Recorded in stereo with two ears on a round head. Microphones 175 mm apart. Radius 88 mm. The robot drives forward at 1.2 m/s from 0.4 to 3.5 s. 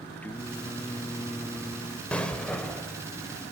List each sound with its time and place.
0.2 s singing: 10° left (ahead or behind), 1.1 m
2.1 s an explosion: 5° left (ahead or behind), 1.9 m